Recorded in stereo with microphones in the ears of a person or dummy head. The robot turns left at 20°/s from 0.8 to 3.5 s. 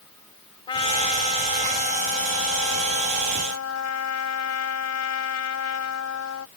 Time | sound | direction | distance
0.7 | a trumpet | 150° left | ?